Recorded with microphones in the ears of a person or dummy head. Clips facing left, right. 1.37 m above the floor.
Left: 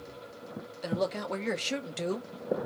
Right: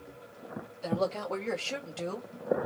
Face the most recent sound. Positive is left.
turn(degrees=15)  # may be behind; listen again after turning